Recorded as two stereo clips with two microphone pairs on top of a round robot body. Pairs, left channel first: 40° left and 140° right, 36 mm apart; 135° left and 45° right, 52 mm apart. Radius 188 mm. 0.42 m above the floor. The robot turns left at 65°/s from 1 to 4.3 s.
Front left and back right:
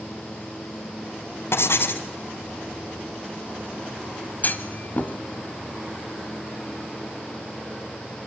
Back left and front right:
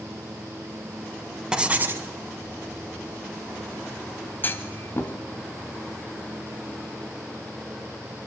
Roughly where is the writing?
Ahead left.